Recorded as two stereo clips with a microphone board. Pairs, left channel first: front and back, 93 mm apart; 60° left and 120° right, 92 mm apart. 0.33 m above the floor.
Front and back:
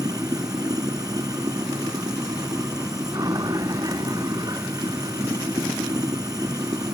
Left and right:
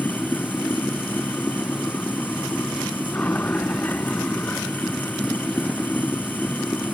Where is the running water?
130° left.